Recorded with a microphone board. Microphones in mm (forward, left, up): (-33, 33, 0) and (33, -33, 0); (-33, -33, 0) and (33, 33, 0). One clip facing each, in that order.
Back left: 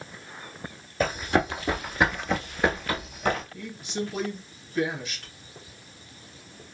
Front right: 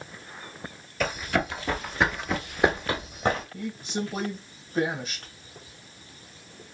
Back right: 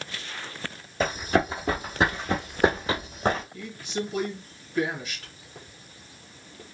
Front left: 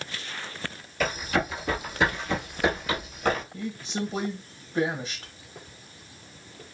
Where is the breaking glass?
I don't hear breaking glass.